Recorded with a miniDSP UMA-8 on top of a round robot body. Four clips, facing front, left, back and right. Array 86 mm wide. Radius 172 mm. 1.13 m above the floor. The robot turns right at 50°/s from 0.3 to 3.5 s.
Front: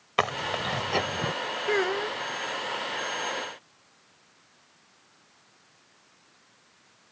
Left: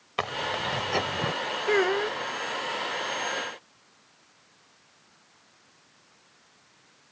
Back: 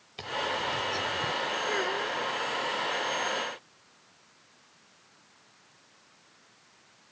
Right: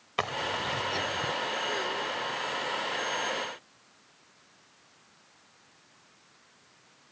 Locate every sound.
0.2 s chewing: 5° left; by 1.3 s 55° left
1.7 s a child speaking: 55° left; by 2.2 s 85° left